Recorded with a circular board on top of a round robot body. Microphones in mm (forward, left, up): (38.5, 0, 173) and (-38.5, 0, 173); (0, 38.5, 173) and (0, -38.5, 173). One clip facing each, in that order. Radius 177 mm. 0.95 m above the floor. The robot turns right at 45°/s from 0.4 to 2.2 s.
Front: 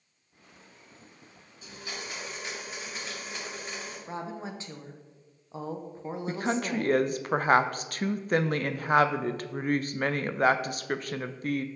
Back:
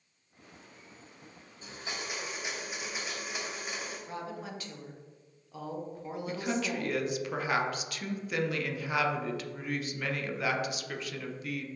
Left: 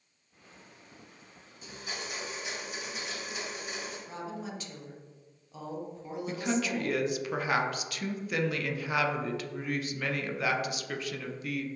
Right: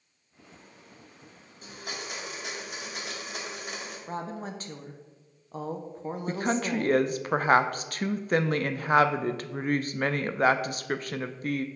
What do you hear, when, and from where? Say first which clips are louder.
1.6 s a blender: even, right 1 dB; 125° right, 2 m; by 4.0 s 100° right, 2 m
4.1 s a woman speaking: front 7 dB, right 7 dB; 55° right, 0.8 m
6.3 s a woman speaking: front 3 dB, right 3 dB; 45° right, 0.5 m